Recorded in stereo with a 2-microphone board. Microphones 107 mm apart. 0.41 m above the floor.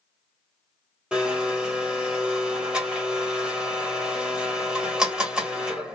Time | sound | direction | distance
1.1 | a blender | 10° right (ahead or behind) | 1.3 m